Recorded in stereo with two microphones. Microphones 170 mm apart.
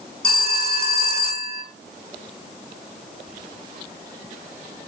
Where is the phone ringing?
70° left (ahead or behind), 2.5 m.